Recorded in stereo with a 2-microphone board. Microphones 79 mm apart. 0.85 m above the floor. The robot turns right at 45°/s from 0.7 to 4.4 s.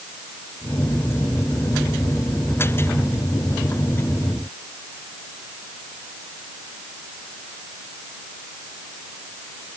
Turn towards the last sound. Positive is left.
No sound to turn to.